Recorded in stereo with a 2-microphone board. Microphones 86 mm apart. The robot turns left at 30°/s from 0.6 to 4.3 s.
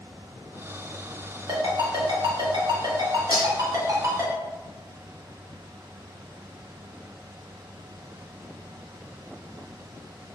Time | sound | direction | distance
1.5 | a ringtone | 65° right (ahead or behind) | 0.8 m
3.3 | cutlery clinking | 70° left (ahead or behind) | 1.1 m